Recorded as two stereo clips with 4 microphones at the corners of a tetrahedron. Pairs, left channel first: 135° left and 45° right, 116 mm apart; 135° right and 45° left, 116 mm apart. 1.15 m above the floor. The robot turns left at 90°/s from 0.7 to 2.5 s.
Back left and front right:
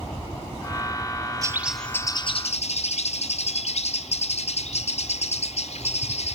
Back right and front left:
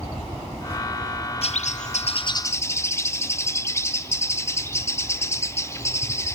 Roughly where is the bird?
Right.